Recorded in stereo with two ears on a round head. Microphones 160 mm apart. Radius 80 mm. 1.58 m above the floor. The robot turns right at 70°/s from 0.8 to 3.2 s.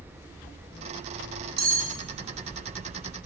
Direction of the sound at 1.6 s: 55° right (ahead or behind).